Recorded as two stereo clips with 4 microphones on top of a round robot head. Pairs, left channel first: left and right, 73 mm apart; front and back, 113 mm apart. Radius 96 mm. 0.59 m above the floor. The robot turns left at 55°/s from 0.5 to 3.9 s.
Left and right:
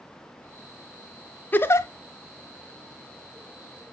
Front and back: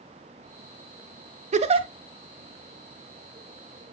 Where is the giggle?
160° left, 0.9 m; by 1.9 s 140° left, 0.9 m.